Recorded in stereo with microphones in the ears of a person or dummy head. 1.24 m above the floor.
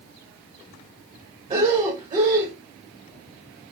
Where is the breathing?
30° right (ahead or behind), 1.3 m.